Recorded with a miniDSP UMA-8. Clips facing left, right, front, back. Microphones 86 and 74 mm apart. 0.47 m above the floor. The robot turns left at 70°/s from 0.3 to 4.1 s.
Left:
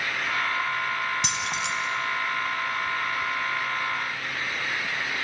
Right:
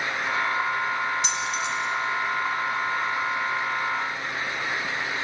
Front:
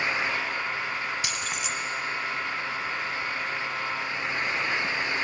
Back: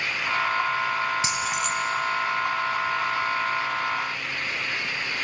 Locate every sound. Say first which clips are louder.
1.2 s keys jangling: right 2 dB, back 6 dB; 115° left, 2 m; by 1.7 s 85° left, 2 m